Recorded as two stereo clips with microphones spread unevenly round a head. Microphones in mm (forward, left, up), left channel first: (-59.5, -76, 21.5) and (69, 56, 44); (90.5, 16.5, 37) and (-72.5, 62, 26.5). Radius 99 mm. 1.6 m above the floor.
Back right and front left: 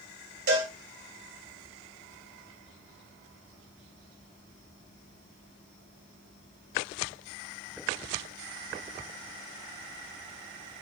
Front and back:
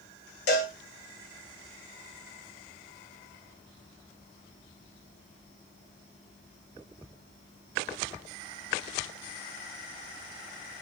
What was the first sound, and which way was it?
A cowbell, 10° left.